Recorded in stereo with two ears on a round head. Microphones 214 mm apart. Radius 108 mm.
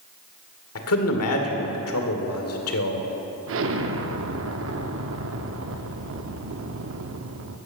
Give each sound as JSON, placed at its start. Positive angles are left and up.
{"t": 0.8, "sound": "a man speaking", "side_deg": 65, "distance_m": 1.9}
{"t": 3.5, "sound": "an explosion", "side_deg": -55, "distance_m": 0.8}